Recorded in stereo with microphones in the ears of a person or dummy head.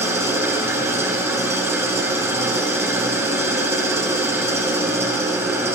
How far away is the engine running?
About 1.2 m.